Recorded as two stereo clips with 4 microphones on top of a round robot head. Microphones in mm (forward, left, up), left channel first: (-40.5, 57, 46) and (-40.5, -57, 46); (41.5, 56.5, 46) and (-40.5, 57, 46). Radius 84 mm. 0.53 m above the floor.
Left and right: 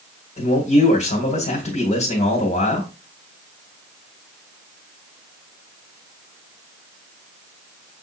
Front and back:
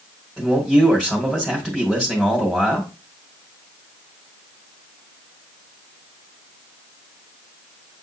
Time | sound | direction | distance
0.4 | a man speaking | 95° left | 2.5 m